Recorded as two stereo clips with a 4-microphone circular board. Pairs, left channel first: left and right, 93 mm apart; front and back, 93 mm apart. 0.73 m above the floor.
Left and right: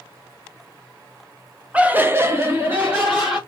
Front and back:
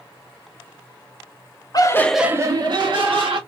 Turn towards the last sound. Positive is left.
turn(degrees=-165)